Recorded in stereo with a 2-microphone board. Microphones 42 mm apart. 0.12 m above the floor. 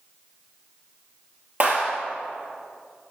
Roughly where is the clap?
Right.